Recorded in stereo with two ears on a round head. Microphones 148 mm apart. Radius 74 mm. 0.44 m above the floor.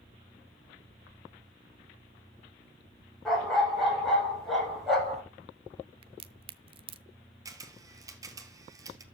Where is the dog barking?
Centre (ahead or behind), 5.5 m.